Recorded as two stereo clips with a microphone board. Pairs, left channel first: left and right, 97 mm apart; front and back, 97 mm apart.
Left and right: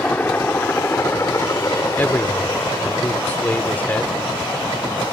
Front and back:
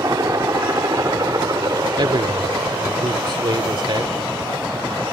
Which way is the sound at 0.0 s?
155° left.